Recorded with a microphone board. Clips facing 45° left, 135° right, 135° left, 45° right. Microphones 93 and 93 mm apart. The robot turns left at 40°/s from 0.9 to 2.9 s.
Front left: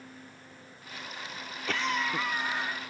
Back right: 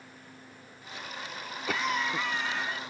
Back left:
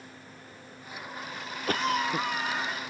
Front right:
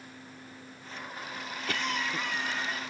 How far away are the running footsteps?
I don't hear running footsteps.